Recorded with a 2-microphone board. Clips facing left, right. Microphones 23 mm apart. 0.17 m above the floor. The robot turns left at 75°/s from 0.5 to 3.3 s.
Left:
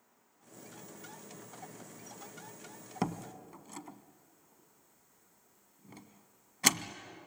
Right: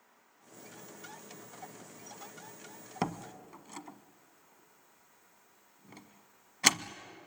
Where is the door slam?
20° right (ahead or behind), 0.7 m; by 7.0 s 15° right (ahead or behind), 0.7 m.